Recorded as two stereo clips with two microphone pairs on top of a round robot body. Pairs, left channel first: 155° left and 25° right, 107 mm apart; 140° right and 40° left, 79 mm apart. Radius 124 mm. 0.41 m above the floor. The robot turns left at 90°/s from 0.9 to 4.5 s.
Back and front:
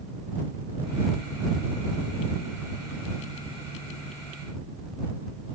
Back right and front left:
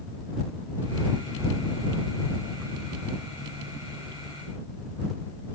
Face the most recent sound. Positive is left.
No sound to turn to.